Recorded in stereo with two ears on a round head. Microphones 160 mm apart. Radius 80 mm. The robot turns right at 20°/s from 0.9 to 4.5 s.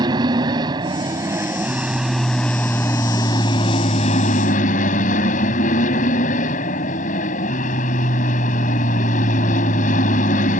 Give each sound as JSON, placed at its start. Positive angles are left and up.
{"t": 0.0, "sound": "an aircraft", "azimuth_deg": -25}